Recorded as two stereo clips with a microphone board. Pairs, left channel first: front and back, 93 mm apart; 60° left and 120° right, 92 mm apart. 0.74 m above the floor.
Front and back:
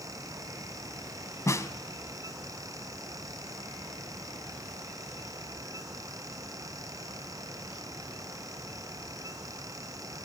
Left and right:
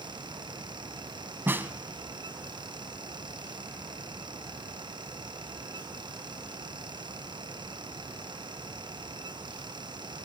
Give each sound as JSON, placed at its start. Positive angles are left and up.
{"t": 1.5, "sound": "a snare drum", "azimuth_deg": -55, "distance_m": 1.2}